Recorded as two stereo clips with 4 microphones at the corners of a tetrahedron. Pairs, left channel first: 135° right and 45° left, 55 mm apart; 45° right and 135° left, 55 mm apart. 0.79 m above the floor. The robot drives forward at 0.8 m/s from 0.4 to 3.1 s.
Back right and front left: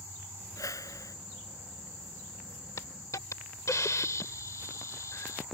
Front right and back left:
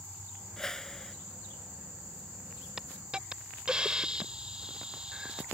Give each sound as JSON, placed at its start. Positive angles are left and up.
{"t": 0.6, "sound": "a whoosh", "azimuth_deg": -125}
{"t": 2.8, "sound": "a hiss", "azimuth_deg": -145}